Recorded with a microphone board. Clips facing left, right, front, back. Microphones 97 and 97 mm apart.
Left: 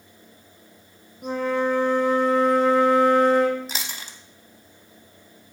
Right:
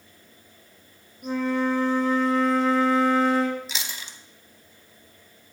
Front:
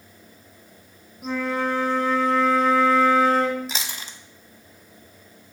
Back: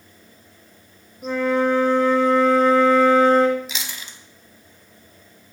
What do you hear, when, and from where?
1.2 s a flute: 85° left, 0.8 m
3.7 s chewing: 50° left, 0.5 m